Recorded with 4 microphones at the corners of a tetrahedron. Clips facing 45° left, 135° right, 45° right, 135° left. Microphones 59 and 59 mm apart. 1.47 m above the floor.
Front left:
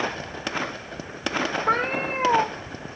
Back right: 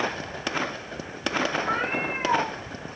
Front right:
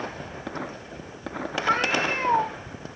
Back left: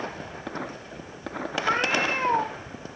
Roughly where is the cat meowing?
Ahead left.